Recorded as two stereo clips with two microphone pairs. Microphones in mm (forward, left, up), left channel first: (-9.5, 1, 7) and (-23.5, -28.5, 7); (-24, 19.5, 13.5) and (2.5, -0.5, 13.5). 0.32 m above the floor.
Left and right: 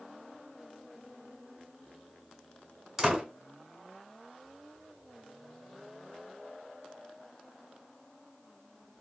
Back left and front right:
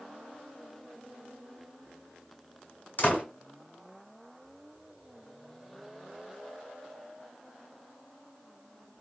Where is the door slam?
165° left, 1.8 m.